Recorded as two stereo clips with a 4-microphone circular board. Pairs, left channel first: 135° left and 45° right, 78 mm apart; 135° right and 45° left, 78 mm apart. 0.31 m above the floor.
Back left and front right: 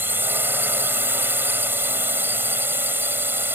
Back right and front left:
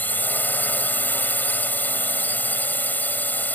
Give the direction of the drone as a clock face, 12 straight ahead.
3 o'clock.